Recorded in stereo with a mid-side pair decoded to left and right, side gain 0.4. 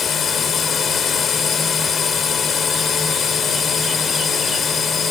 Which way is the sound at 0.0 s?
55° left.